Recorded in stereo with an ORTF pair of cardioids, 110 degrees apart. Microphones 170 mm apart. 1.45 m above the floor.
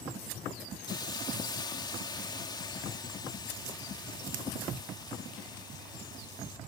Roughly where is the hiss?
Ahead left.